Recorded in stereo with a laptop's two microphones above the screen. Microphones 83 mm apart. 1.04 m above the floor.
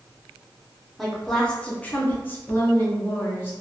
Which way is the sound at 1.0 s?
Centre (ahead or behind).